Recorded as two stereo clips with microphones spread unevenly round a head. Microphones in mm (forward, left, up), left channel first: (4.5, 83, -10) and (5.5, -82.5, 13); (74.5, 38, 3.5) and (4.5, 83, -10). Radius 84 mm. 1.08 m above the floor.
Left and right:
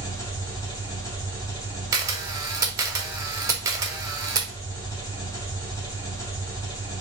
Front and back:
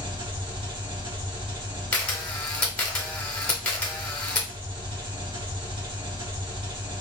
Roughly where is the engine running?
Behind.